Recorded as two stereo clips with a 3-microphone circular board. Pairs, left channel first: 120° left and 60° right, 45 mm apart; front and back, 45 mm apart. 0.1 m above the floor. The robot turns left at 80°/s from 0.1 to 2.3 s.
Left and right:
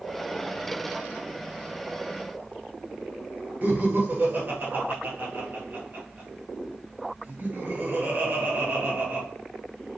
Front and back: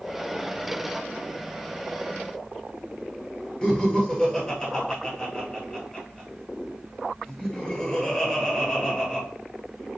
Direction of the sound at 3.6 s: 70° right.